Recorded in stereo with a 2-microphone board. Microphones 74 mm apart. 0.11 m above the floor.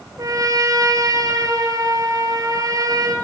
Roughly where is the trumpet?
Right.